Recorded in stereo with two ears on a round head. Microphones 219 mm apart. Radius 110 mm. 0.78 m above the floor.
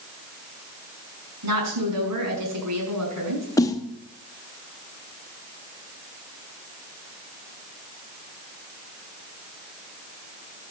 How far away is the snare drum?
About 0.9 m.